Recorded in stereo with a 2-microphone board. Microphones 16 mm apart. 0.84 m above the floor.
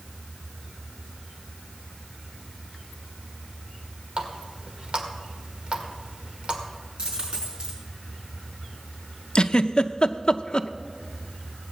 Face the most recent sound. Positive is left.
turn(degrees=55)  # may be behind; listen again after turning